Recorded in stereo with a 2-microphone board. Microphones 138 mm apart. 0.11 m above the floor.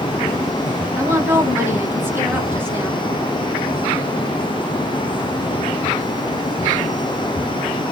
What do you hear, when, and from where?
1.0 s a woman speaking: 15° right (ahead or behind), 1.1 m